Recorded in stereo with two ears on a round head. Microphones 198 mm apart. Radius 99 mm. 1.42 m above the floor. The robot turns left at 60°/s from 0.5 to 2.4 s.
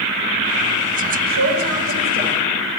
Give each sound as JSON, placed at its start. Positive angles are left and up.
{"t": 1.3, "sound": "a man speaking", "azimuth_deg": -85, "distance_m": 3.0}